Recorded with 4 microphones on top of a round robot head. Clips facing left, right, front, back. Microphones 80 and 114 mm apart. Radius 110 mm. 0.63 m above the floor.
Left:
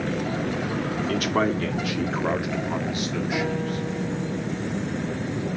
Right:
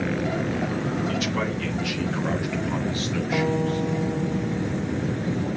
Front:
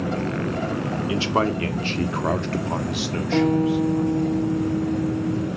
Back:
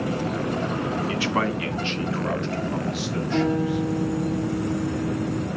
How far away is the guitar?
About 4.5 m.